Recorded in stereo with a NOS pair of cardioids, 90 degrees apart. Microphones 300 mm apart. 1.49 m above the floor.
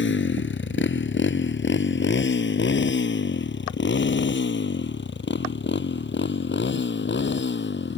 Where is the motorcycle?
35° left.